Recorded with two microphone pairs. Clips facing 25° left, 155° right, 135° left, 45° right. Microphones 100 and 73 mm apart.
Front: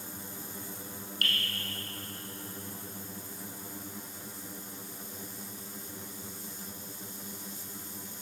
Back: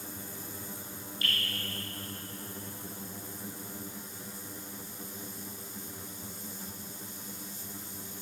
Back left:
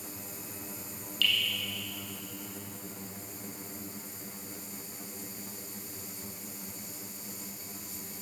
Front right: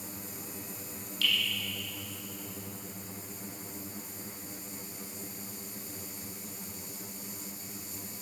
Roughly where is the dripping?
Ahead.